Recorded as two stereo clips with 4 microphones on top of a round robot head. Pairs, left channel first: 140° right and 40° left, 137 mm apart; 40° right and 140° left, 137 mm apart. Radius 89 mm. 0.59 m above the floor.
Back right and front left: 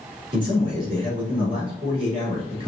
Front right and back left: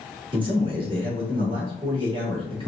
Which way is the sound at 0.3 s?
90° left.